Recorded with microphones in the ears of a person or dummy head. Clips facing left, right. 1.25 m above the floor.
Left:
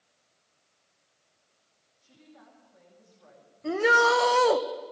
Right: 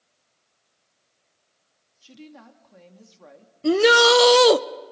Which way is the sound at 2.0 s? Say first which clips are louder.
Right 10 dB; 80° right.